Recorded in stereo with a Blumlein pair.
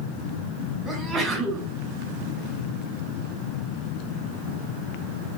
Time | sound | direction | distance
0.8 | a sneeze | 15° right | 2.5 m